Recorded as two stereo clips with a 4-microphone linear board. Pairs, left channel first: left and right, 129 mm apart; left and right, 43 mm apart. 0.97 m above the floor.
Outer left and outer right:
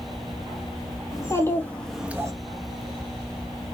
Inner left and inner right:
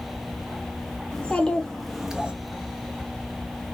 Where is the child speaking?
25° left (ahead or behind), 1.2 m; by 2.3 s 30° right (ahead or behind), 0.6 m.